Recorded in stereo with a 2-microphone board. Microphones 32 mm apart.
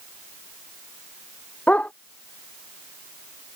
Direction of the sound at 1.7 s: 45° left (ahead or behind).